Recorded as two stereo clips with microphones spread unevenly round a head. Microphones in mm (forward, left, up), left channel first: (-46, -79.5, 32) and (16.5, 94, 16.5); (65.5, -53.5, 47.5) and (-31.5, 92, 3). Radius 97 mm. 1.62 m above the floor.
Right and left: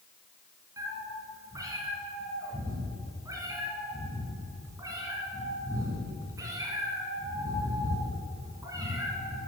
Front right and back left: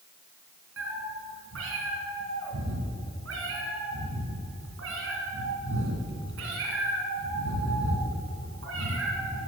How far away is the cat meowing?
About 2.5 m.